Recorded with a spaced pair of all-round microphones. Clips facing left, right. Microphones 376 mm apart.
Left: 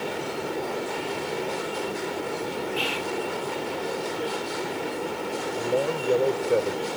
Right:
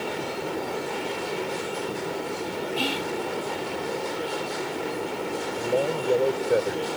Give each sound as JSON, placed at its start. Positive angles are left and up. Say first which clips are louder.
{"t": 2.8, "sound": "whispering", "louder": "right 1 dB", "side_deg": -50}
{"t": 5.5, "sound": "a man speaking", "louder": "even", "side_deg": 5}